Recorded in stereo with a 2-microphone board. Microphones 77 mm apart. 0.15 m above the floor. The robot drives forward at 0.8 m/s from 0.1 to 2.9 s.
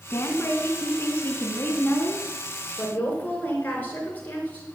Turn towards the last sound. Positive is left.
turn(degrees=25)  # may be behind; listen again after turning